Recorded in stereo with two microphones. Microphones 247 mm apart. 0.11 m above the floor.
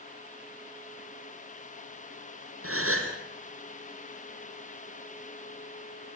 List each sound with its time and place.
2.6 s a gasp: 60° right (ahead or behind), 3.5 m